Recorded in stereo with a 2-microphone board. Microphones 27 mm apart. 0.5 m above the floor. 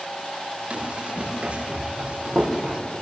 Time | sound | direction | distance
0.7 | running footsteps | 45° right (ahead or behind) | 5 m